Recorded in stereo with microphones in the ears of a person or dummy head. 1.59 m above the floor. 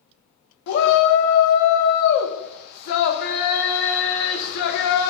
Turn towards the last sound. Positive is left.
turn(degrees=60)  # may be behind; listen again after turning